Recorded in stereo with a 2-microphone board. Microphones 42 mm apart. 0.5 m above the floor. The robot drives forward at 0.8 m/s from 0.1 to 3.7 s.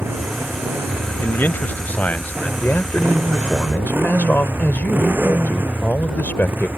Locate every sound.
0.0 s a motorcycle: 75° right (ahead or behind); by 6.8 s 60° right (ahead or behind)
1.2 s a man speaking: 55° left (ahead or behind); by 2.5 s 40° left (ahead or behind)
2.6 s a man speaking: 60° left (ahead or behind); by 6.7 s 55° left (ahead or behind)